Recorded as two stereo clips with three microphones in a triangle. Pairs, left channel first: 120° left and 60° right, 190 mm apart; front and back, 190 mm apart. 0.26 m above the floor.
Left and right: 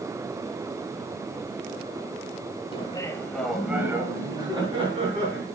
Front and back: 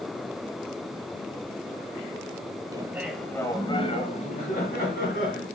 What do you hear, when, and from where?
2.7 s laughter: 135° left, 1.3 m; by 5.5 s 5° right, 2.5 m